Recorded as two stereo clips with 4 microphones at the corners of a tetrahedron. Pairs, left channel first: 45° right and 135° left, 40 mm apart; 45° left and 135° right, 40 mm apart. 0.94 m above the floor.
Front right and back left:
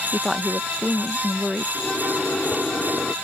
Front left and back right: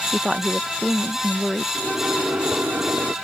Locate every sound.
0.1 s a woman speaking: 170° right
1.8 s a microwave: 115° right